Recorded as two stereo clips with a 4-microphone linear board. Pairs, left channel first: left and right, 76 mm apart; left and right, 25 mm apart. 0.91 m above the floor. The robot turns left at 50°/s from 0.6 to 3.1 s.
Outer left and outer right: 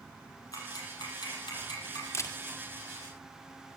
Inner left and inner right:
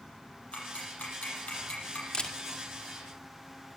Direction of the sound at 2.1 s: 40° left (ahead or behind).